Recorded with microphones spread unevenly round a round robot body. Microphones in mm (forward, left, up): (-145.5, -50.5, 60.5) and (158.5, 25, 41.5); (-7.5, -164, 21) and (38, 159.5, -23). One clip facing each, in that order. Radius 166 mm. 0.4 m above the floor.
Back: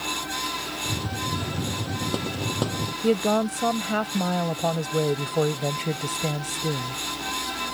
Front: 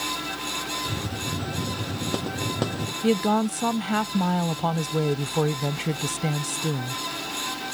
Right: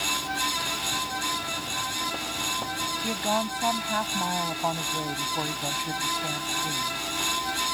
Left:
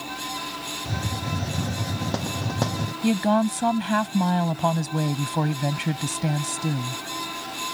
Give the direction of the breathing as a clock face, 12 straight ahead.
I don't hear breathing.